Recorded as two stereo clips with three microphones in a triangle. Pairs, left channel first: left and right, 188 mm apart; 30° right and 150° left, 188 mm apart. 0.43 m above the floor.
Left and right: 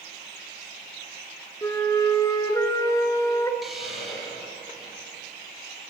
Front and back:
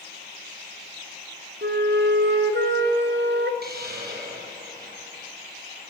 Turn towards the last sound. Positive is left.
turn(degrees=180)